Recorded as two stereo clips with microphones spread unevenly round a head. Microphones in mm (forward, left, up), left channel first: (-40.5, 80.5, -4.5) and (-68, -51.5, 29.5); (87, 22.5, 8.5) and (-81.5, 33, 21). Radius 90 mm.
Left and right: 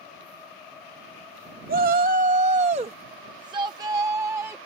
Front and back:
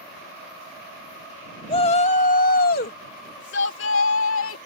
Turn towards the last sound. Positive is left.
turn(degrees=-25)